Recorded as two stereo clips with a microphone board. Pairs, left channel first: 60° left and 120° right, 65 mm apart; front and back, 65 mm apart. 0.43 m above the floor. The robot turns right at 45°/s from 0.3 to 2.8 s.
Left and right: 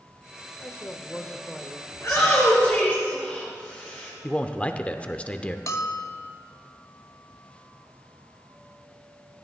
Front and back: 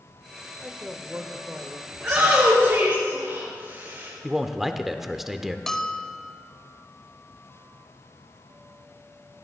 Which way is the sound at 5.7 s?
85° left.